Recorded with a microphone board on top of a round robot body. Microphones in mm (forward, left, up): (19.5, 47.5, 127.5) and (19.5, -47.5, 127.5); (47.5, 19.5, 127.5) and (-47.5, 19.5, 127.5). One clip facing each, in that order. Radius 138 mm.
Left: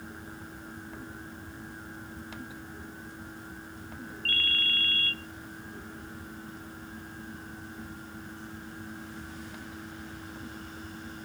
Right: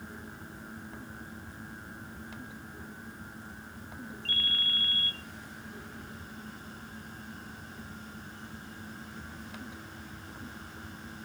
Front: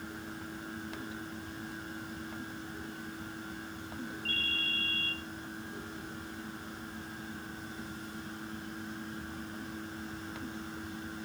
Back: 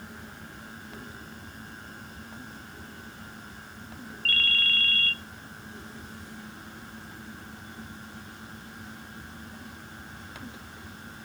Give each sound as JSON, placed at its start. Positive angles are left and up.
{"t": 4.2, "sound": "a ringtone", "azimuth_deg": -170, "distance_m": 0.8}